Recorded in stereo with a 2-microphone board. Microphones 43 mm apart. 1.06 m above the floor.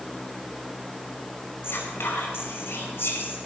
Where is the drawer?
I don't hear a drawer.